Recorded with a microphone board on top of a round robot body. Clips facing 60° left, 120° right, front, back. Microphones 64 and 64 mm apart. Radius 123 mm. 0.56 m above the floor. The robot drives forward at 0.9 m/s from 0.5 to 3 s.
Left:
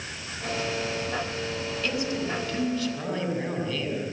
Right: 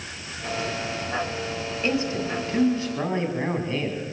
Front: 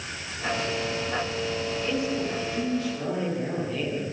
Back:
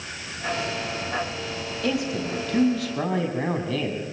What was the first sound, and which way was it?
A man speaking, straight behind.